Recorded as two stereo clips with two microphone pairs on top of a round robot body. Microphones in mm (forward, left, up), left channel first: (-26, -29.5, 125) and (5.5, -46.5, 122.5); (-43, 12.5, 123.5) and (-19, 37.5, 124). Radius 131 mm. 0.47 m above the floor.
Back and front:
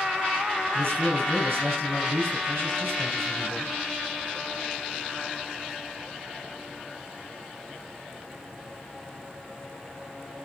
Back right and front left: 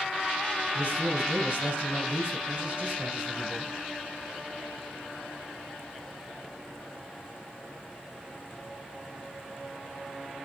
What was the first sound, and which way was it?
A man speaking, 10° right.